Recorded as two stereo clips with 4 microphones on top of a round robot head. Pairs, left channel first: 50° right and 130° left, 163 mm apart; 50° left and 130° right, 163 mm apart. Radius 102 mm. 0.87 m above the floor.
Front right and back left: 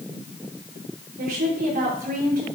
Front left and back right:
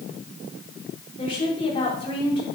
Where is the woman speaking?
105° left, 5 m.